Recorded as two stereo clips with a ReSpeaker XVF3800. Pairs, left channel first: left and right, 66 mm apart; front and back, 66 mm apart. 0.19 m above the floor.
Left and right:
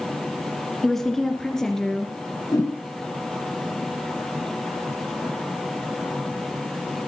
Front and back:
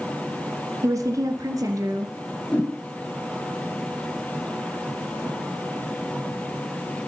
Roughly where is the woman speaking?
Behind.